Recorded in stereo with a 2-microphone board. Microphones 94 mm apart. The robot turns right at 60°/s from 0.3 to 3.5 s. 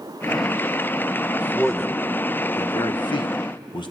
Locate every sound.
1.4 s a man speaking: 15° right (ahead or behind), 1.1 m; by 3.9 s 55° left (ahead or behind), 1.1 m